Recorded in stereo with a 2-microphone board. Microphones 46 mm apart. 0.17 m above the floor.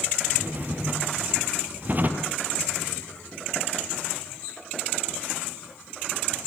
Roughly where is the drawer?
Right.